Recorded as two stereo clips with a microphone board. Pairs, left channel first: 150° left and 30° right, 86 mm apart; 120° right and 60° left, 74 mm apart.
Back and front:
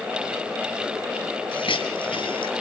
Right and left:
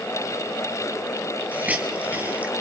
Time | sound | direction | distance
1.5 | a hiss | 130° left | 2.5 m